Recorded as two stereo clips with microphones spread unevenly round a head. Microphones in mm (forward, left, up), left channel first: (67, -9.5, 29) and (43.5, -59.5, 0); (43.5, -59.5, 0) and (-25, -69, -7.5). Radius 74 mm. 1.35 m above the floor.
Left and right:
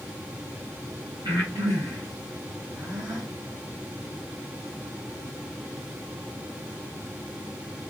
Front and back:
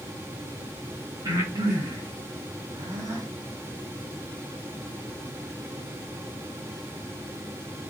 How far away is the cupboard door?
I don't hear a cupboard door.